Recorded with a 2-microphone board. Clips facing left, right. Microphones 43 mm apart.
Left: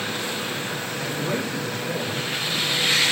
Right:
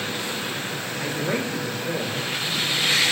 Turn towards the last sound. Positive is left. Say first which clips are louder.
# right 2 dB
turn(degrees=-30)  # may be behind; listen again after turning